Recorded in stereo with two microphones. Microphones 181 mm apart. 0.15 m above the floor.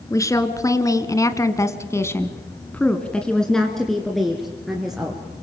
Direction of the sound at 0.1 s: 15° left (ahead or behind).